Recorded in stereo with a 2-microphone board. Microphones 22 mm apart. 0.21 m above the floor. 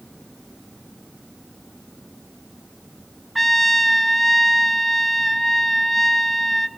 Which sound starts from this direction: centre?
A trumpet, at 3.4 s.